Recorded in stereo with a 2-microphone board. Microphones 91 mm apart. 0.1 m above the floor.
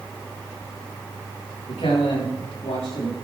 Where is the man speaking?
85° left, 9 m.